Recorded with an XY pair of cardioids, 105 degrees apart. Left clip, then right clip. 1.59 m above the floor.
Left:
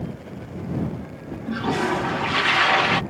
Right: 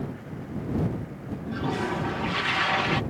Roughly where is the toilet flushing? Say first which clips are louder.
Left 6 dB; ahead left.